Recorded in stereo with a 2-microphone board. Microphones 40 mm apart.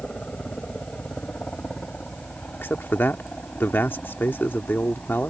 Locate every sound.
0.0 s a helicopter: 30° left (ahead or behind); by 5.3 s 35° left (ahead or behind)
2.6 s a man speaking: 60° left (ahead or behind)